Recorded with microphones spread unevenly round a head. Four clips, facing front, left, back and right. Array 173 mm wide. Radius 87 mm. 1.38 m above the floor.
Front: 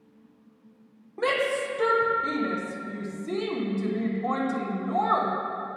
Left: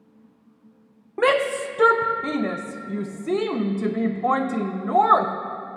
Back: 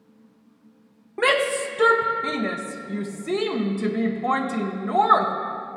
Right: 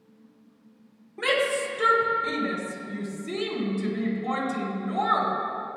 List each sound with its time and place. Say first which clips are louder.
1.2 s a shout: left 5 dB, back 4 dB; 115° left, 0.8 m